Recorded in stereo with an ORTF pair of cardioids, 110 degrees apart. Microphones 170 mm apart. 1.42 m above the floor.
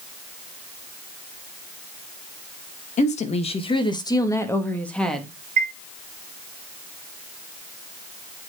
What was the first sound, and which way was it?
A woman speaking, 45° left.